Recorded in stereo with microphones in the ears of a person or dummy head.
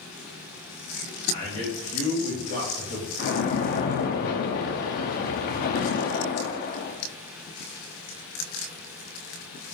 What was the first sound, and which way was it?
A man speaking, 35° left (ahead or behind).